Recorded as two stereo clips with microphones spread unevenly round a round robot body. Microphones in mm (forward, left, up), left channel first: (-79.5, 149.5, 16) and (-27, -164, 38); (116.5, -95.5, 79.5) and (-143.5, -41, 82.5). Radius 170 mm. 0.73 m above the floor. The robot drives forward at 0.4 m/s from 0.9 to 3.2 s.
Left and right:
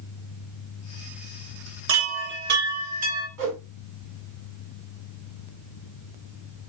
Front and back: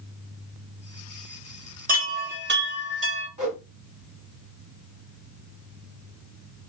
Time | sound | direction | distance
1.9 | a chime | 130° right | 0.9 m
3.4 | a whoosh | 130° right | 1.7 m